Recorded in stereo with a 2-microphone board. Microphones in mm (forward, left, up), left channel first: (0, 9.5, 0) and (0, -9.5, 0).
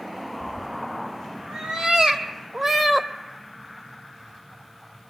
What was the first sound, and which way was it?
A cat meowing, 75° right (ahead or behind).